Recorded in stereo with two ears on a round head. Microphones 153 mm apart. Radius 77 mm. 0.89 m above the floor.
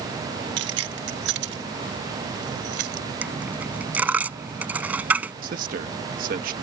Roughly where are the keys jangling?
Right.